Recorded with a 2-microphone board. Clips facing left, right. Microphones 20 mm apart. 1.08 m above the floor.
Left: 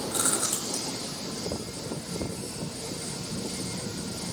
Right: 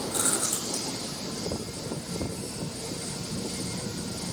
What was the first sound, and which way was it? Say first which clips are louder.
Chewing: left 1 dB; 10° left (ahead or behind).